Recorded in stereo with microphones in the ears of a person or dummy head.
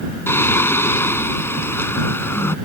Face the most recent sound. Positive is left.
turn(degrees=10)  # may be behind; listen again after turning